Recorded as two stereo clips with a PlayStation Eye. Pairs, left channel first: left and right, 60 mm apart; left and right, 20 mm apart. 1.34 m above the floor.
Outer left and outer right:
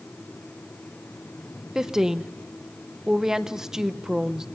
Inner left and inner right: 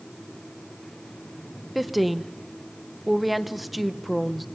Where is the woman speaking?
10° right (ahead or behind), 0.7 m.